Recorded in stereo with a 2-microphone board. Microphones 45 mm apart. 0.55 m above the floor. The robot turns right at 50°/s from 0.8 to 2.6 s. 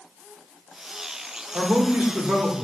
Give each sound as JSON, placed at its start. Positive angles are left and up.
{"t": 1.5, "sound": "a man speaking", "azimuth_deg": -60, "distance_m": 1.1}